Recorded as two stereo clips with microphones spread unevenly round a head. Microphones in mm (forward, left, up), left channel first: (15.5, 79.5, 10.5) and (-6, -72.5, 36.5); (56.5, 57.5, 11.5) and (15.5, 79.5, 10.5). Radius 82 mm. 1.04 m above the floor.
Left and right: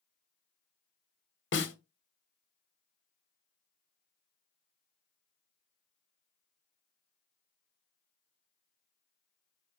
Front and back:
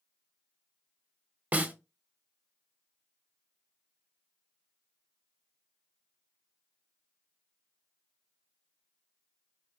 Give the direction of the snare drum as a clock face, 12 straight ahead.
9 o'clock.